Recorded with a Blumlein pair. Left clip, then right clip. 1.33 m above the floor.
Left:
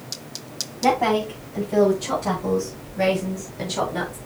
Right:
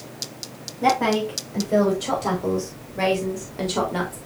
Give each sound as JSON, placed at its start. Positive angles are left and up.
{"t": 0.8, "sound": "a woman speaking", "azimuth_deg": -60, "distance_m": 7.0}